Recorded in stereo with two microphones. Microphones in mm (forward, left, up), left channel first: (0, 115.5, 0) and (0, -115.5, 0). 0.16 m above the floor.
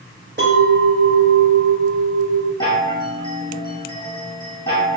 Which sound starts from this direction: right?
A clink, at 0.4 s.